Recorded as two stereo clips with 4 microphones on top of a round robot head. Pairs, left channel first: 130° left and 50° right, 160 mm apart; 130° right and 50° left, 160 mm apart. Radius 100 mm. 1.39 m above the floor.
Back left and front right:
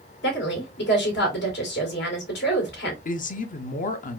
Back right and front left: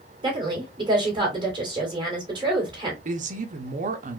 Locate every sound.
0.2 s a woman speaking: 115° left, 1.9 m
3.0 s a woman speaking: 95° left, 0.7 m